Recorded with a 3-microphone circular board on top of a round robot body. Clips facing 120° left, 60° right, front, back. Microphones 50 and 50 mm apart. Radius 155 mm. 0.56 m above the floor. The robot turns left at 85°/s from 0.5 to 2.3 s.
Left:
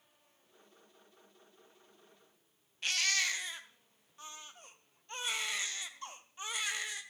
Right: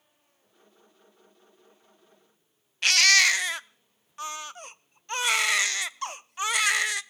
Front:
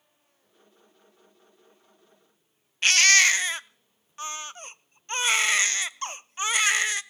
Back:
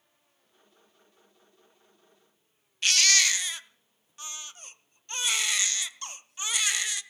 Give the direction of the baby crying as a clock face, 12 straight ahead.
2 o'clock.